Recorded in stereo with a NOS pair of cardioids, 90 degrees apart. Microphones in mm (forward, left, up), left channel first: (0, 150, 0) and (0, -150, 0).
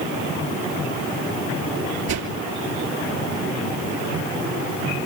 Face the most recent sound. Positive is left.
turn(degrees=-60)